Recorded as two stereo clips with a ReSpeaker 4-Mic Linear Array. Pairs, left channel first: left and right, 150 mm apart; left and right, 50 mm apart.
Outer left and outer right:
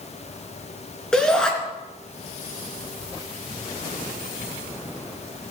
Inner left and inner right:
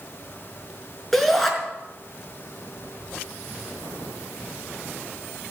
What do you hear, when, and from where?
1.1 s a shout: 5° left (ahead or behind), 3.5 m